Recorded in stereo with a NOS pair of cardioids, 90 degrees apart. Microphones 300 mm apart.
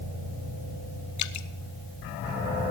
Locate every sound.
1.2 s dripping: 65° left, 0.8 m